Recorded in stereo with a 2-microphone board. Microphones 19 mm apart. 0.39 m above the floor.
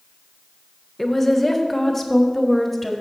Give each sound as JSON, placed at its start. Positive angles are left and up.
{"t": 1.0, "sound": "a woman speaking", "side_deg": 15, "distance_m": 0.9}